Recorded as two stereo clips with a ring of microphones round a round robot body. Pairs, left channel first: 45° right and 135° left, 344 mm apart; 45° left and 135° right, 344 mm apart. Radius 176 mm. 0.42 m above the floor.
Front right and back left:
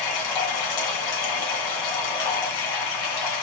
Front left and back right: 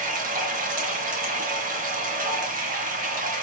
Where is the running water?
65° right, 2 m.